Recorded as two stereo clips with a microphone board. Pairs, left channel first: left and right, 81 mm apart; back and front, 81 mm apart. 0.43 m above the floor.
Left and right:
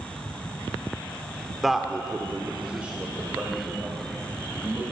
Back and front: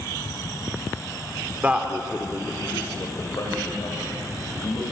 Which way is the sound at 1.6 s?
5° right.